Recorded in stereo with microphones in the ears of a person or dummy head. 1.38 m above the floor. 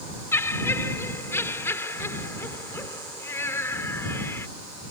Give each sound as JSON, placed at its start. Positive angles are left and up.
{"t": 0.3, "sound": "laughter", "side_deg": 10}